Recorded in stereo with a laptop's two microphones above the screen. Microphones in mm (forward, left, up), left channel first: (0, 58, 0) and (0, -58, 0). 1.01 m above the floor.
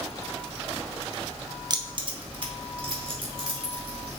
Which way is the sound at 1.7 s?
40° right (ahead or behind).